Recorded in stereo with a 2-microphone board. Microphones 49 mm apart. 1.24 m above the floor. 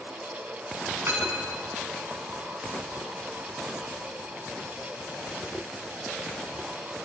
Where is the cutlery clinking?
55° right (ahead or behind), 6 m.